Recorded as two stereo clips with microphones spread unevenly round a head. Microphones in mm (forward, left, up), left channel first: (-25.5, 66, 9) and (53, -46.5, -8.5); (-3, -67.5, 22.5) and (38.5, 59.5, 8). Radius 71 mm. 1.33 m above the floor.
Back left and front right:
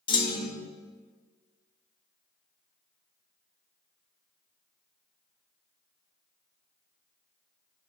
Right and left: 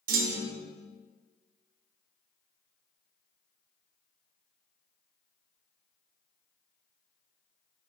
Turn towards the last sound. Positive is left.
turn(degrees=65)